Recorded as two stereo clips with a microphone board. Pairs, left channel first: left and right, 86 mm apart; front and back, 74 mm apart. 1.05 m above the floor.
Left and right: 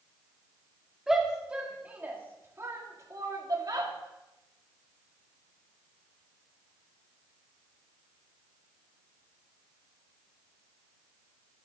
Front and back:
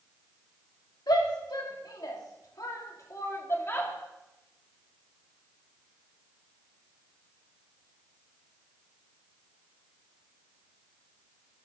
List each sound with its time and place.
1.1 s a shout: 5° right, 3 m; by 3.9 s 55° right, 2.5 m